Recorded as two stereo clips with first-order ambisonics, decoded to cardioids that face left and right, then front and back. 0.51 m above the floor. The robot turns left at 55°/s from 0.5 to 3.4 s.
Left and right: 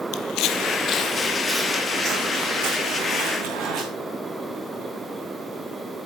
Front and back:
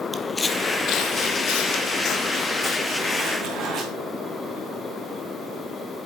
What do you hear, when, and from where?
0.1 s footsteps: 90° left, 0.6 m; by 3.8 s 125° right, 2.5 m